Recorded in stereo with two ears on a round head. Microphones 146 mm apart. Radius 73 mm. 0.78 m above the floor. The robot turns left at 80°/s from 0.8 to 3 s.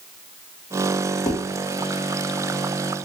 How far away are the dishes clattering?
About 0.8 m.